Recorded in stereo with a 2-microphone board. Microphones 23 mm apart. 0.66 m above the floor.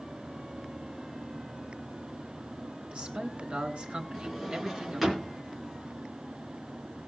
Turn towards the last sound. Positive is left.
turn(degrees=-15)  # may be behind; listen again after turning